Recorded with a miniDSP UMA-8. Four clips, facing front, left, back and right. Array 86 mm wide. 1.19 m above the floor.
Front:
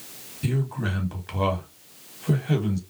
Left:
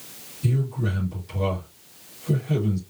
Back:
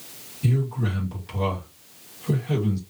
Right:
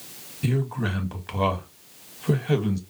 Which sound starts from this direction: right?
A man speaking, at 0.4 s.